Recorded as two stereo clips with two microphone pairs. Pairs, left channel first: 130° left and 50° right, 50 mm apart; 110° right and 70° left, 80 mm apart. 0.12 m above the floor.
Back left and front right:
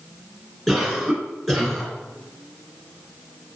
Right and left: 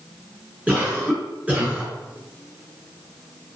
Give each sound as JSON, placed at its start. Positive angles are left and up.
{"t": 0.7, "sound": "a cough", "azimuth_deg": 45, "distance_m": 1.4}